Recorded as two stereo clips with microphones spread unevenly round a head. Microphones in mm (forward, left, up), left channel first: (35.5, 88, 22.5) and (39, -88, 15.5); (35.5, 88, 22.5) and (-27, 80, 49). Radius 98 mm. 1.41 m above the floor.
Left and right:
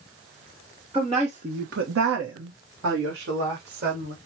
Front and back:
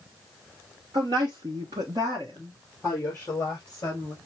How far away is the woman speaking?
About 1.0 m.